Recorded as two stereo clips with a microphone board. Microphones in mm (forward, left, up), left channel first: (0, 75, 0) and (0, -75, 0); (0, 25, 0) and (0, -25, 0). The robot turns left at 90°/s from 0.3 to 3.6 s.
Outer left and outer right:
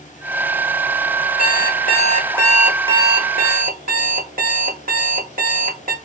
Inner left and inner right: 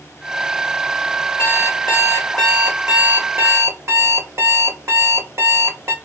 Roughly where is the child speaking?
No child speaking in this recording.